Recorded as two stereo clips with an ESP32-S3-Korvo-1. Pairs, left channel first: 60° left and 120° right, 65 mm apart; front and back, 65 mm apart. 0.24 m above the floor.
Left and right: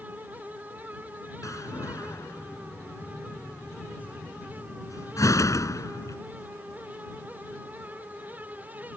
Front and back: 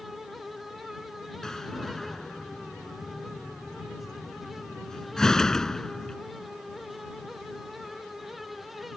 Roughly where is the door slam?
Left.